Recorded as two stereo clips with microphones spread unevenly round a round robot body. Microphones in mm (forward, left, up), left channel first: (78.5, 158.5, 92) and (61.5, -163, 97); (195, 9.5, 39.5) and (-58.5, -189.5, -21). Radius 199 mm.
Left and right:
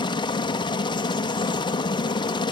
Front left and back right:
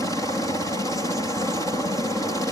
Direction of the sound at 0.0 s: 130° left.